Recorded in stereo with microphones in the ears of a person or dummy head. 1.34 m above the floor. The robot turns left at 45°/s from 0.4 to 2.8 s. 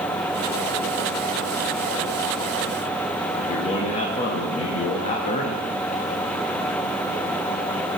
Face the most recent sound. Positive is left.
turn(degrees=35)  # may be behind; listen again after turning